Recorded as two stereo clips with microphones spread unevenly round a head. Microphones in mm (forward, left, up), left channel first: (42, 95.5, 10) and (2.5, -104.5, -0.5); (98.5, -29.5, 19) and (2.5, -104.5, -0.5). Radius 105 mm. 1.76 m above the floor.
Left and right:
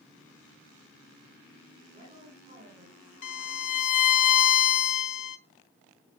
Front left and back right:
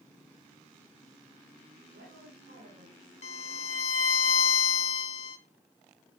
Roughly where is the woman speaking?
Behind.